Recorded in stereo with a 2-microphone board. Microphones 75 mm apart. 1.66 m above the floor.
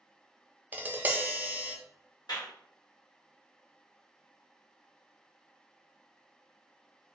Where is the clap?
65° left (ahead or behind), 1.4 m.